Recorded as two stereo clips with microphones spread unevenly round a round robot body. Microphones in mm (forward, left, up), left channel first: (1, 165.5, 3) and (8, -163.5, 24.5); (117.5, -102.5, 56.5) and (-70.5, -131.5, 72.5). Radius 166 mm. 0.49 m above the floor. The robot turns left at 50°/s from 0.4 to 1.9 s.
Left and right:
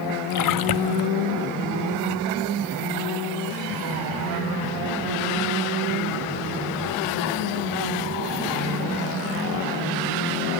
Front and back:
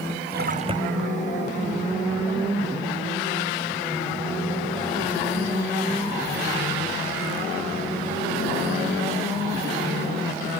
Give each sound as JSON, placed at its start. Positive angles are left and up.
{"t": 0.3, "sound": "a splash", "azimuth_deg": 130}